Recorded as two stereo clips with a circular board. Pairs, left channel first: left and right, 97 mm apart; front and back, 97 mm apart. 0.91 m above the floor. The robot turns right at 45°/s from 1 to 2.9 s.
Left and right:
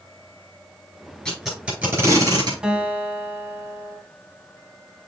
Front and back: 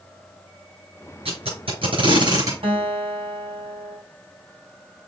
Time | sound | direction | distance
1.2 | tape being pulled | 170° left | 6 m
2.6 | a guitar | 170° right | 2 m